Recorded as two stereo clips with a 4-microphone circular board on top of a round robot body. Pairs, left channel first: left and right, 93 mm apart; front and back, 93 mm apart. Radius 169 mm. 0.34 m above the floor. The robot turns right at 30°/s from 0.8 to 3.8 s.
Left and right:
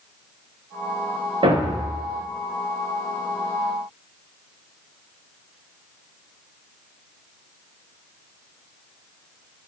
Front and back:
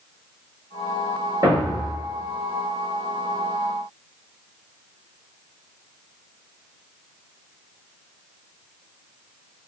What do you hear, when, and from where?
1.4 s a thud: 125° right, 8 m; by 2.0 s 110° right, 8 m